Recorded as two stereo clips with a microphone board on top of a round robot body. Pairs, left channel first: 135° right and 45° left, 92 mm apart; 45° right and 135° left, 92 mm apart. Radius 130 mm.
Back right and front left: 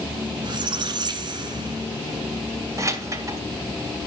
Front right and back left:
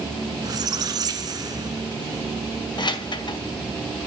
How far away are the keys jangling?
About 2 m.